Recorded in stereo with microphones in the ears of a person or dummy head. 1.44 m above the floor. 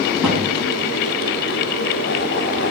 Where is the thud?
Centre (ahead or behind), 6 m.